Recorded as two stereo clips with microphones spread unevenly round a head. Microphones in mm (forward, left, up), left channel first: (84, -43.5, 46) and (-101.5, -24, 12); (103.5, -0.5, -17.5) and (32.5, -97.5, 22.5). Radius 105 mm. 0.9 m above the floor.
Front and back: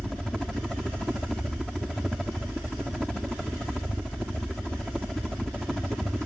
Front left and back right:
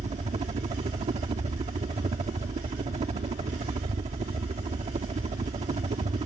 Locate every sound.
0.0 s a helicopter: 100° right